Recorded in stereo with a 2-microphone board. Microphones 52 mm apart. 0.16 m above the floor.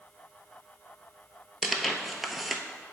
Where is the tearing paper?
Centre (ahead or behind), 0.6 m.